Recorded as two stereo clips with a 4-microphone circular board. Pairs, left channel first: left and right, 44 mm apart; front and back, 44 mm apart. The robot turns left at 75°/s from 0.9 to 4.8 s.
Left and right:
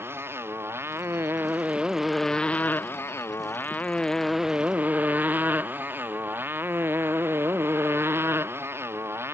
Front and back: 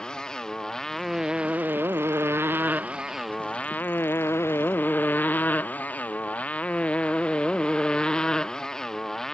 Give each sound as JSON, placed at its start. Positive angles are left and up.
{"t": 0.0, "sound": "a motorcycle", "azimuth_deg": -75}